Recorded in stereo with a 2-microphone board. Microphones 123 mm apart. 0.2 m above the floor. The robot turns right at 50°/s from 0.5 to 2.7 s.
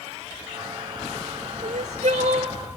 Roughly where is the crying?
Right.